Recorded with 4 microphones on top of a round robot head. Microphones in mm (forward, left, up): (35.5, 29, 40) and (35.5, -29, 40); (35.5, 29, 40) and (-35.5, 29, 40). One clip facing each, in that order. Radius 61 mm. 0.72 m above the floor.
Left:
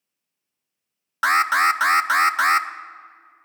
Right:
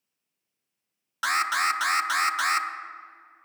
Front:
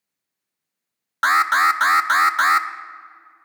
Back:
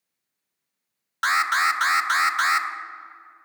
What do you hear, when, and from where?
1.2 s an alarm: 40° left, 0.6 m